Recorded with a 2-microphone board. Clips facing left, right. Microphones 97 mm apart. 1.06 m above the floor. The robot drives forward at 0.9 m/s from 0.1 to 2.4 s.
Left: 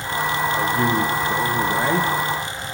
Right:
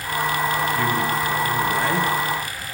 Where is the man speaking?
30° left (ahead or behind), 0.7 m; by 2.1 s 15° left (ahead or behind), 1.4 m.